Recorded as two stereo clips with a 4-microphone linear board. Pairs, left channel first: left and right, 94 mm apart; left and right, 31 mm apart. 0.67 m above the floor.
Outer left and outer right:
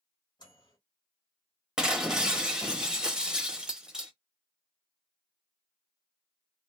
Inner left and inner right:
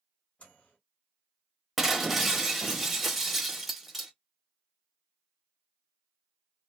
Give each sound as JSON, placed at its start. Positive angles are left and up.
{"t": 0.4, "sound": "a microwave", "side_deg": 50, "distance_m": 1.4}
{"t": 1.8, "sound": "breaking glass", "side_deg": -10, "distance_m": 0.6}